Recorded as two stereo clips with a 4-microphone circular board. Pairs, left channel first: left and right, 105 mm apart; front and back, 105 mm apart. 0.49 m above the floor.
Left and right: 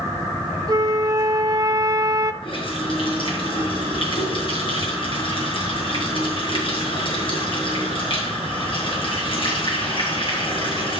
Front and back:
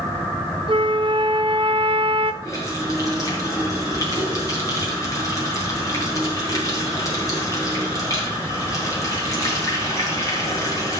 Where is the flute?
145° right, 0.5 m.